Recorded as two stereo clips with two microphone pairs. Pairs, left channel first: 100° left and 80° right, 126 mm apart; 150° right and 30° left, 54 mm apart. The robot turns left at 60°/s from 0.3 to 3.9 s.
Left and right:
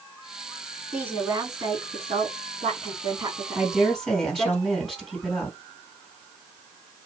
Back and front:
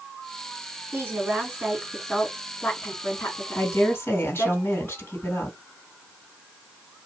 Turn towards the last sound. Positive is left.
turn(degrees=-170)